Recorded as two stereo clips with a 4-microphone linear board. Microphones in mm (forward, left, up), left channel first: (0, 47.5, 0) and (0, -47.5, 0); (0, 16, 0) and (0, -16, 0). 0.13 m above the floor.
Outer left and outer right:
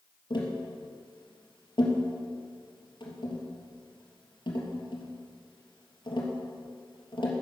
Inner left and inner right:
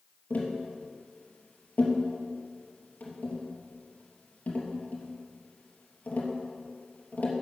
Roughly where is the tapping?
Left.